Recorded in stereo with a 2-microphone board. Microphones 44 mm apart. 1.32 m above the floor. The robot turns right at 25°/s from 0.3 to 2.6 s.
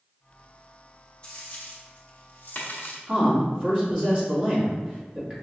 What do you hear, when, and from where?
1.2 s a dropped coin: 25° left (ahead or behind), 1.0 m; by 3.0 s 45° left (ahead or behind), 1.0 m
3.1 s a man speaking: 25° right (ahead or behind), 1.9 m